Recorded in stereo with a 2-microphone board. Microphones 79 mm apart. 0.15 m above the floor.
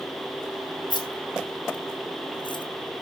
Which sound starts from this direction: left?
Keys jangling, at 0.9 s.